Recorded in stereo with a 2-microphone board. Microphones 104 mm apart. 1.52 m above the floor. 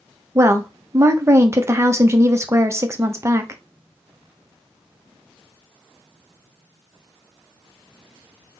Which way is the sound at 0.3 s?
25° right (ahead or behind).